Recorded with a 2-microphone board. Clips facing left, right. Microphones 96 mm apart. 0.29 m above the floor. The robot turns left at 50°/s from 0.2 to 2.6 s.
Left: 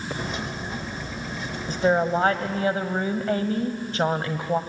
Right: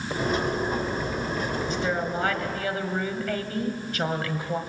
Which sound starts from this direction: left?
A woman speaking, at 1.7 s.